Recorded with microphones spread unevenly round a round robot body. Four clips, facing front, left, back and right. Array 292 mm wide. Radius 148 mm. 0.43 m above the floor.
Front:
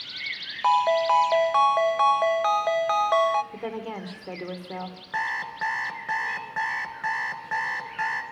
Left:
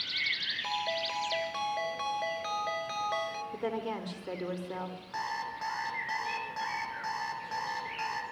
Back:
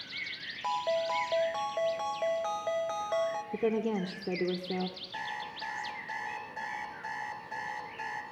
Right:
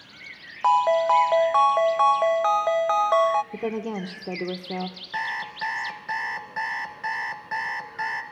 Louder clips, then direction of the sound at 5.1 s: Right 5 dB, front 9 dB; 15° right.